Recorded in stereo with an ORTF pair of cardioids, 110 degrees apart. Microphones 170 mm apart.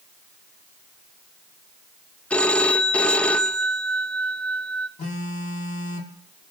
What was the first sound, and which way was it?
A phone ringing, 5° left.